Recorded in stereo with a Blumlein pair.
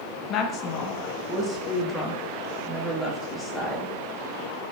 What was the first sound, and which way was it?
A woman speaking, 35° left.